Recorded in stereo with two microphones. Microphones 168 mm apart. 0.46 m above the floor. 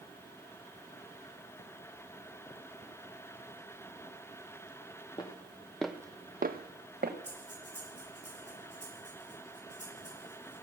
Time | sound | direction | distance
5.2 | footsteps | 25° left (ahead or behind) | 1.7 m
7.2 | breathing | 85° left | 6.5 m